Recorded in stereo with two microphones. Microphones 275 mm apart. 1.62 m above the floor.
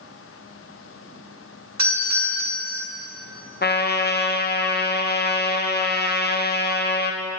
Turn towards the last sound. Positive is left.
turn(degrees=35)  # may be behind; listen again after turning